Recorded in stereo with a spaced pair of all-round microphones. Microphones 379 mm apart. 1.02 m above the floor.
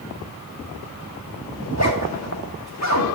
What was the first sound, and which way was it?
A zipper, 45° left (ahead or behind).